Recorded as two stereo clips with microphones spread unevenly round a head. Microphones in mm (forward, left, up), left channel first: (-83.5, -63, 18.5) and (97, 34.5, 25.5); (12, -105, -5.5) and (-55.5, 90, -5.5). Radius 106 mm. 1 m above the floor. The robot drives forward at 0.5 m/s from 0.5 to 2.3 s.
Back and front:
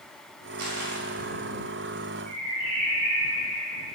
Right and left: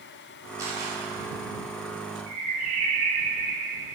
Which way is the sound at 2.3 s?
80° left.